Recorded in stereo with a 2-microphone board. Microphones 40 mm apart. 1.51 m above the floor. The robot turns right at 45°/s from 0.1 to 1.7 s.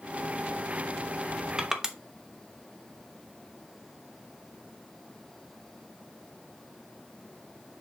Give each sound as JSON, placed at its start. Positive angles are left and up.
{"t": 1.6, "sound": "crushing", "side_deg": -20, "distance_m": 1.0}